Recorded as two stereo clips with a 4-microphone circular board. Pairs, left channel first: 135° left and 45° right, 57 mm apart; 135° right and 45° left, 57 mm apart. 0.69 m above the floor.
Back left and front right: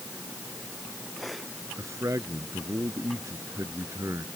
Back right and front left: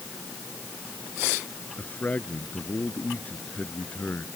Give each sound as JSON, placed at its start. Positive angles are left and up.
{"t": 1.8, "sound": "a man speaking", "azimuth_deg": -75}